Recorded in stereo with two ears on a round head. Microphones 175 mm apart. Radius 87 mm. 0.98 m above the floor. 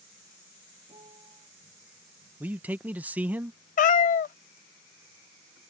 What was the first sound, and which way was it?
A piano, 25° right (ahead or behind).